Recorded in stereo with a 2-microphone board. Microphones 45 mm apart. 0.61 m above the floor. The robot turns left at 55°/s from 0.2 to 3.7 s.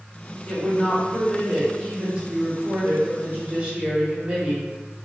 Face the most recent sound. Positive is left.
turn(degrees=-130)